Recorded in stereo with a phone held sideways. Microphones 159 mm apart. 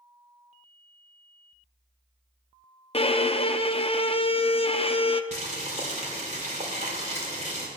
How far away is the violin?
About 0.6 m.